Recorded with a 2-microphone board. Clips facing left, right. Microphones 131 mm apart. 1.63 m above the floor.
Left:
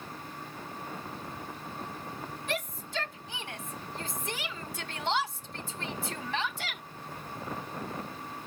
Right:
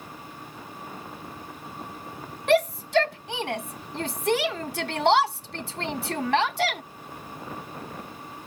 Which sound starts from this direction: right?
A shout, at 2.5 s.